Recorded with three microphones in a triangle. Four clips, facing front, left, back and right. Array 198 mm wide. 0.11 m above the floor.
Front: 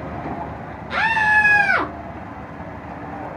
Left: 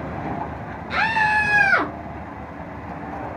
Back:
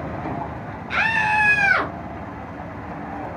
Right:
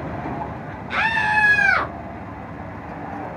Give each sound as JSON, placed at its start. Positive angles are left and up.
{"t": 0.9, "sound": "a scream", "azimuth_deg": 35, "distance_m": 1.6}